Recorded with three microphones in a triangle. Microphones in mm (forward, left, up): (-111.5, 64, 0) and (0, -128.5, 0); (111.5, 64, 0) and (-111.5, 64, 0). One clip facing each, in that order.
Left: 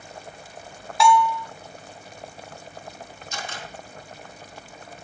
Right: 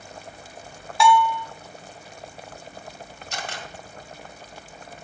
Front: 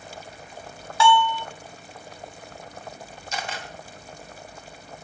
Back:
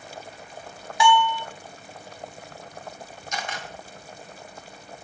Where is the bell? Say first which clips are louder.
Even, front 1 dB; 150° right, 0.6 m.